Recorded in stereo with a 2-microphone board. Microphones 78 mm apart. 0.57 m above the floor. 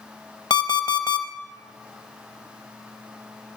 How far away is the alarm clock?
About 1.0 m.